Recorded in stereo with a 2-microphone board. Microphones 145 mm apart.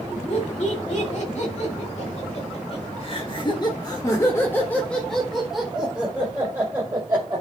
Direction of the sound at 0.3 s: 60° left (ahead or behind).